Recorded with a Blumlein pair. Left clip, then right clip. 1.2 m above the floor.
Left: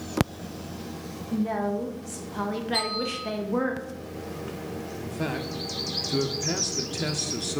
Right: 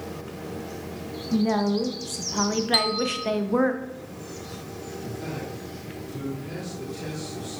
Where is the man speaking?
35° left, 1.1 m.